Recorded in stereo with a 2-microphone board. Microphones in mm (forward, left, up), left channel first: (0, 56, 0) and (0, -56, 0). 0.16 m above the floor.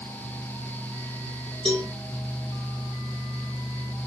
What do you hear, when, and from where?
1.6 s a cowbell: 50° right (ahead or behind), 1.5 m